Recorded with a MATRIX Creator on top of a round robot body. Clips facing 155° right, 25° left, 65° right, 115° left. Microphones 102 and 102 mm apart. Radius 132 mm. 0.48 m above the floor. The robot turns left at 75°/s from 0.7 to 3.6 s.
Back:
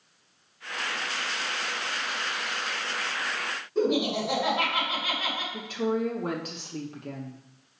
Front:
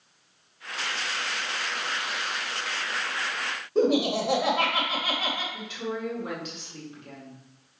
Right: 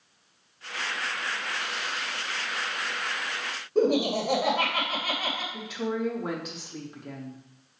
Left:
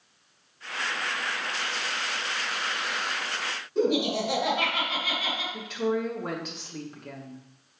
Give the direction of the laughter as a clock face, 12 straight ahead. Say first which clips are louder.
Front 3 dB, right 2 dB; 1 o'clock.